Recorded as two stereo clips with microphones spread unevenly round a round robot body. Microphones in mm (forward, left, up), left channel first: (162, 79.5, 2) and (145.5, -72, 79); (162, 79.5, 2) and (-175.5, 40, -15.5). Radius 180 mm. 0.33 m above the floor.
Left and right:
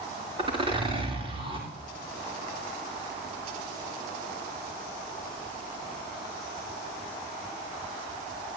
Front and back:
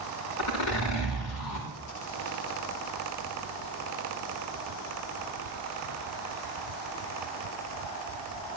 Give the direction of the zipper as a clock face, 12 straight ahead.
1 o'clock.